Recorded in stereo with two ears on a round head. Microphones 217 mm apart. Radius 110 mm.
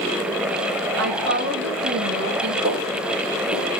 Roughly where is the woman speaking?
Right.